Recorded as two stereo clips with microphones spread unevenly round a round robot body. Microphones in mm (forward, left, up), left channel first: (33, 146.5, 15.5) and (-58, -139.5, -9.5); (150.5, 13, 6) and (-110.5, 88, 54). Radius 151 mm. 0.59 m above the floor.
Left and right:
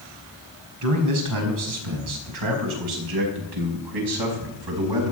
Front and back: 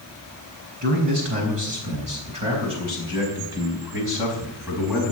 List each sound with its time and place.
0.8 s a man speaking: 135° right, 5 m; by 5.1 s 105° right, 5 m